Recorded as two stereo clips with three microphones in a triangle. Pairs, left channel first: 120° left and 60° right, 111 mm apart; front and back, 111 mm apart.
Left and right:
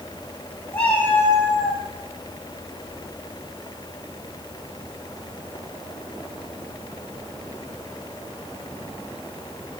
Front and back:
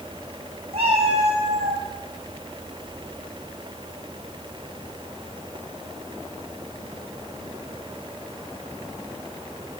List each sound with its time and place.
0.7 s a cat meowing: 160° right, 3.5 m; by 1.8 s straight behind, 2.5 m